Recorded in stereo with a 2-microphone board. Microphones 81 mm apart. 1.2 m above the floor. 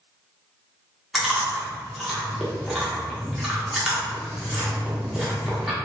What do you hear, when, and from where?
1.1 s chewing: 5° right (ahead or behind), 0.8 m